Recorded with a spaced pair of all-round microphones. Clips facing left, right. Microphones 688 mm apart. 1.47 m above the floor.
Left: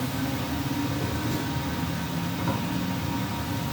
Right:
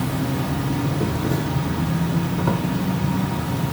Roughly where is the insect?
Right.